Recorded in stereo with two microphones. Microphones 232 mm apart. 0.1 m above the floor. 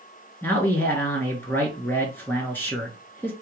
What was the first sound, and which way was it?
A man speaking, 10° left (ahead or behind).